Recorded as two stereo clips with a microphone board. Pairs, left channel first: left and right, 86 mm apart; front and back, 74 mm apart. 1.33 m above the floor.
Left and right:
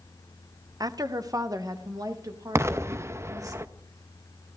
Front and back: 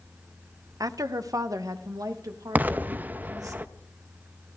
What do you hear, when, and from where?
0.8 s a woman speaking: 135° right, 0.7 m; by 3.5 s 140° right, 2.5 m
2.5 s an explosion: 125° right, 0.6 m